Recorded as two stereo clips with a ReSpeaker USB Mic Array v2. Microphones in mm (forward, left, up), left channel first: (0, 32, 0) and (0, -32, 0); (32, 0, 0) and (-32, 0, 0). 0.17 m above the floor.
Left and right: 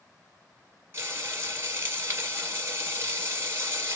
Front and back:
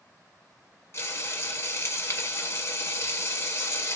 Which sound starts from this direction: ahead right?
Frying, at 0.9 s.